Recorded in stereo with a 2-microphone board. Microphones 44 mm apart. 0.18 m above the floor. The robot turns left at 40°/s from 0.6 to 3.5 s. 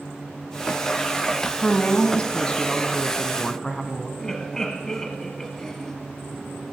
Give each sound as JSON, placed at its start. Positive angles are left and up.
{"t": 1.6, "sound": "a woman speaking", "side_deg": 25, "distance_m": 1.1}
{"t": 4.2, "sound": "laughter", "side_deg": 15, "distance_m": 1.1}